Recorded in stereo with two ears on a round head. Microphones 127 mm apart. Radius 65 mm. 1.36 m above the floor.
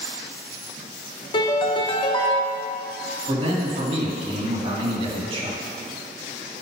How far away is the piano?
About 0.9 m.